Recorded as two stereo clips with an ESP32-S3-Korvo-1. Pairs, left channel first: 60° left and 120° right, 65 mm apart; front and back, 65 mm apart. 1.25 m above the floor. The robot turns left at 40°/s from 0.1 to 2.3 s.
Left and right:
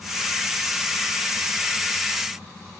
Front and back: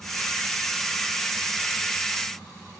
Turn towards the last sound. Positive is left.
No sound to turn to.